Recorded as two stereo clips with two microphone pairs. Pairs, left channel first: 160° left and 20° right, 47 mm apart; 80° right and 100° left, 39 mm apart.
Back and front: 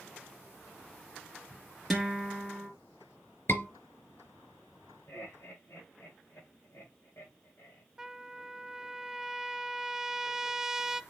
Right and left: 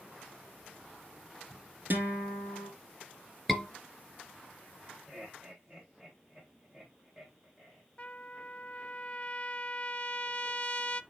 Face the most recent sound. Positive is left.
turn(degrees=-80)